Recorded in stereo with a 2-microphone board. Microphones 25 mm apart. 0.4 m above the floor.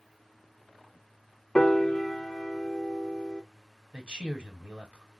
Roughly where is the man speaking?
Right.